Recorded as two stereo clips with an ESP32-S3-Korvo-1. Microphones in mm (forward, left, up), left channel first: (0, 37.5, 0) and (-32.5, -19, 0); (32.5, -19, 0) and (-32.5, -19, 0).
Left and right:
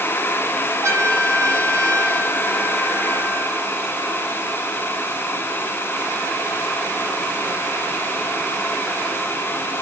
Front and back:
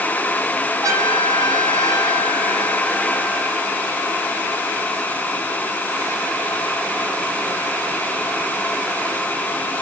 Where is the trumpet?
160° right, 9.5 m.